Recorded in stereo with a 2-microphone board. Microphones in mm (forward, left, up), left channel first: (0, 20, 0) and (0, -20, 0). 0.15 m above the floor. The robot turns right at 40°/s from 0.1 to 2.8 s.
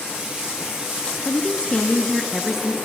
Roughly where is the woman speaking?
Behind left.